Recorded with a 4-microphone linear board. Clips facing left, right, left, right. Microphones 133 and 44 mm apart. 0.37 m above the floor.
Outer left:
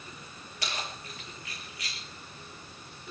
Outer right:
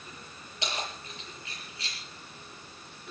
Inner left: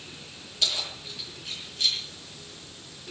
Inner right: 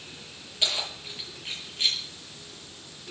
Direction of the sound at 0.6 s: 25° right (ahead or behind).